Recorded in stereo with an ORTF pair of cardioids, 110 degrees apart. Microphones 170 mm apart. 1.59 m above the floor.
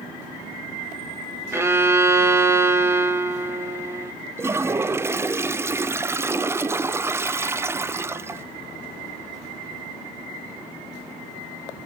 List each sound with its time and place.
1.5 s a violin: 15° right, 1.7 m
4.4 s a toilet flushing: 15° right, 0.5 m